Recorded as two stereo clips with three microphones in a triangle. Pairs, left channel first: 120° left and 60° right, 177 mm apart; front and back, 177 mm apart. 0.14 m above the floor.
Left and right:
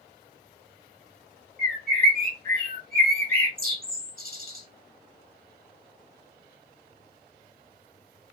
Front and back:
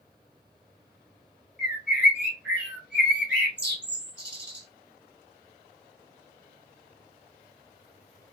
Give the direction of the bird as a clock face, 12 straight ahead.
3 o'clock.